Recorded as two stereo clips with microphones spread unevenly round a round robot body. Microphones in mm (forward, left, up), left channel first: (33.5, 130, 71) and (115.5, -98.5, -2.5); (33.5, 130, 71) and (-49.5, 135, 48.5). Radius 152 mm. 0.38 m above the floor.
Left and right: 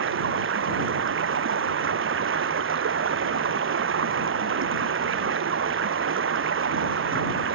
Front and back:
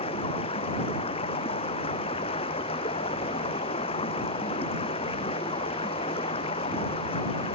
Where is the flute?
I don't hear a flute.